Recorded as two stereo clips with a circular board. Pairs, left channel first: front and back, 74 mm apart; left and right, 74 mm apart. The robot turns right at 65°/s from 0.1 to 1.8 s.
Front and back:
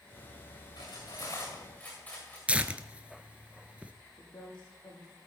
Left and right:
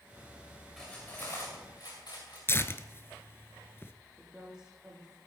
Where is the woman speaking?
10° right, 6 m.